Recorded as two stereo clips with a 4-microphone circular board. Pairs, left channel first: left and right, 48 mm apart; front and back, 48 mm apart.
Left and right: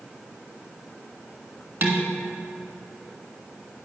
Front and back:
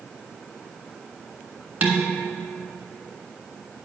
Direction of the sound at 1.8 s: 120° right.